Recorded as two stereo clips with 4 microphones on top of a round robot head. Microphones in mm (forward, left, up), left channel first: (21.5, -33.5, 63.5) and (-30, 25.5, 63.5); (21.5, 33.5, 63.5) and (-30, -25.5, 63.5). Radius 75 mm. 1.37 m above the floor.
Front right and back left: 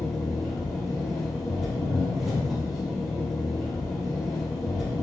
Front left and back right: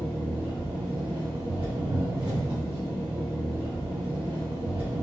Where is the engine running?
140° right, 1.4 m.